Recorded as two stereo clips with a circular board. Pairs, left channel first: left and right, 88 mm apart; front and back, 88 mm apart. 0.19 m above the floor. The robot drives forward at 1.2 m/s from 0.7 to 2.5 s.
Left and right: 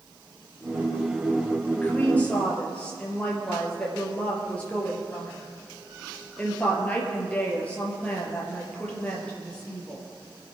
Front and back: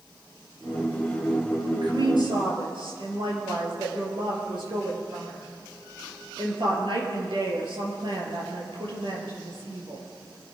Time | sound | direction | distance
1.8 | a woman speaking | 160° left | 4 m